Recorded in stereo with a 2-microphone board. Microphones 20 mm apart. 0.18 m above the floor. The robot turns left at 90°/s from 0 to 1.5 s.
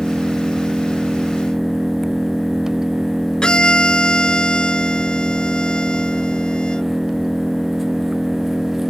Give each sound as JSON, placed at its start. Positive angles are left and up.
{"t": 0.0, "sound": "an engine running", "azimuth_deg": -30}
{"t": 3.4, "sound": "a violin", "side_deg": 45}